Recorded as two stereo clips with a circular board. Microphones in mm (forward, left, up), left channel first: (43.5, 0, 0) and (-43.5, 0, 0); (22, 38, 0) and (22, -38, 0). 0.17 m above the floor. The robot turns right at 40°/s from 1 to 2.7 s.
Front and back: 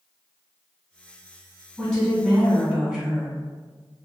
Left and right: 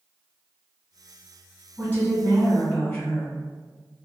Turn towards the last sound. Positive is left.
turn(degrees=100)